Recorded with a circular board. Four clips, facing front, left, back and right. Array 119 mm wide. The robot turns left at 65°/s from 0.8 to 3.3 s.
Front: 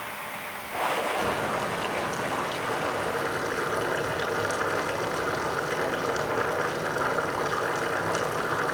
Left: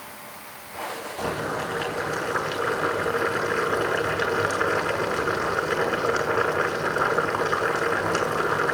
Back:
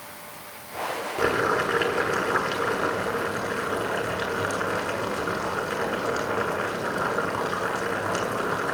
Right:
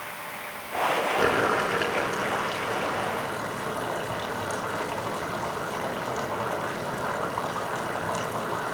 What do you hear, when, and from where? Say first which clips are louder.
1.2 s boiling: right 2 dB, back 4 dB; 120° right, 7.5 m; by 8.8 s 105° left, 7.5 m